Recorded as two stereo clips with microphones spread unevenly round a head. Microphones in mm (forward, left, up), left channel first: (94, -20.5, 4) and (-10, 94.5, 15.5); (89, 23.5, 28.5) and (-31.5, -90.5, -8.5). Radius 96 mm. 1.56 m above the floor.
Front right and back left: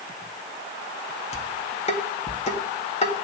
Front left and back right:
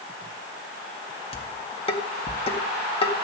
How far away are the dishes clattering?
About 1.8 m.